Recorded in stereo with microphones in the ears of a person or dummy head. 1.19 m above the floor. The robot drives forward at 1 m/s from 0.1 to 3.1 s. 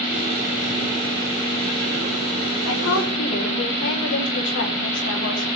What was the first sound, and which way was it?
A woman speaking, 75° left (ahead or behind).